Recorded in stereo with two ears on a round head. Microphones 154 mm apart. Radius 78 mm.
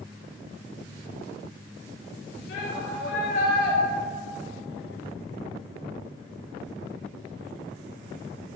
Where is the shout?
75° left (ahead or behind), 4 m; by 3.8 s 70° left (ahead or behind), 3 m.